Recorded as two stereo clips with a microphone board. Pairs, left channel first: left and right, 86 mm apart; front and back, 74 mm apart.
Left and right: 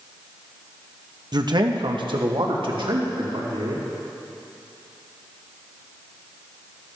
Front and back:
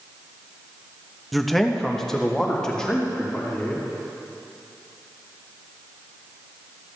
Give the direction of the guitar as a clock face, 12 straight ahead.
I don't hear a guitar.